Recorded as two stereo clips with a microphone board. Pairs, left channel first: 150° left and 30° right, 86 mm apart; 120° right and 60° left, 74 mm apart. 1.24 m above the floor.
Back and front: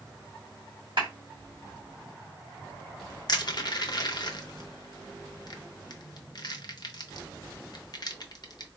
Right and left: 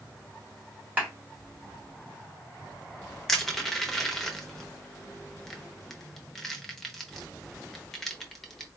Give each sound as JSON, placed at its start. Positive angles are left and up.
{"t": 1.0, "sound": "a clap", "azimuth_deg": -10, "distance_m": 2.0}
{"t": 3.3, "sound": "crushing", "azimuth_deg": 150, "distance_m": 0.7}